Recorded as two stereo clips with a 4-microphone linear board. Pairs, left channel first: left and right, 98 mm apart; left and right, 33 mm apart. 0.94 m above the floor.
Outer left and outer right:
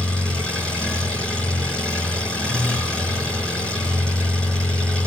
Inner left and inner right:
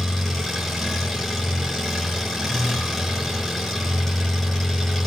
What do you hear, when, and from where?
0.0 s an engine running: 10° left (ahead or behind), 4.5 m